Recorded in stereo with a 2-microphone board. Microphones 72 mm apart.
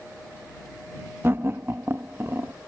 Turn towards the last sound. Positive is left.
turn(degrees=-35)  # may be behind; listen again after turning